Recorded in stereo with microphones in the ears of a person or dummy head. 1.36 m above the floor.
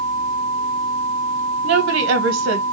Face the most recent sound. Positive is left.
turn(degrees=-70)  # may be behind; listen again after turning